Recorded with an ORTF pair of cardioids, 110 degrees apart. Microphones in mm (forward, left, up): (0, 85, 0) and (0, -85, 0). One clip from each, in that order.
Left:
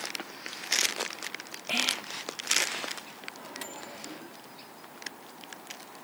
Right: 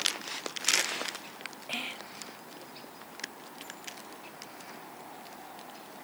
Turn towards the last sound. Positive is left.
turn(degrees=70)